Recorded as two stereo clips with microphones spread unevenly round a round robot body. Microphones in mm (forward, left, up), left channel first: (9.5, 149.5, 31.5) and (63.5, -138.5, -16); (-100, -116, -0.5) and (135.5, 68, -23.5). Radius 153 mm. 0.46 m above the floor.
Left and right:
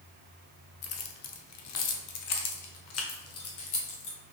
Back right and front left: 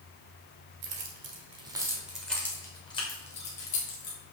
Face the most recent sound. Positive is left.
turn(degrees=155)